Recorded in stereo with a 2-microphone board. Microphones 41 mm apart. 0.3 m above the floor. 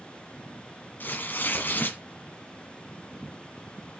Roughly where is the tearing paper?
Left.